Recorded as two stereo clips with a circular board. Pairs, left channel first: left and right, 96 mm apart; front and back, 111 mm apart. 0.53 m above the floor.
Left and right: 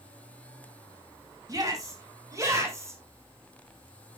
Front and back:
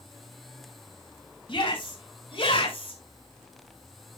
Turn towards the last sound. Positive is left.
turn(degrees=-30)